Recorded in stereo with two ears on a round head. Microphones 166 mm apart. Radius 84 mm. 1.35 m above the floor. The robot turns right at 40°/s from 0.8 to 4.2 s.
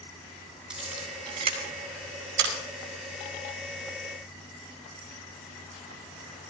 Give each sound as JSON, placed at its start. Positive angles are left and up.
{"t": 0.7, "sound": "a camera shutter", "side_deg": -5, "distance_m": 8.0}